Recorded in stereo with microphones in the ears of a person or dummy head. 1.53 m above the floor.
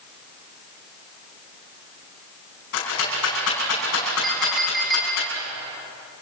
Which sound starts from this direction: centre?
A clink, at 4.2 s.